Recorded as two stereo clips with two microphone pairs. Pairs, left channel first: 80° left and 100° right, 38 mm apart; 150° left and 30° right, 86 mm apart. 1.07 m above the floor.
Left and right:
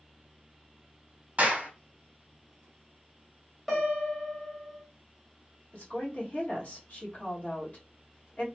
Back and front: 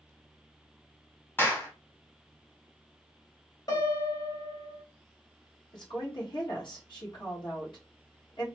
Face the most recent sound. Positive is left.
turn(degrees=130)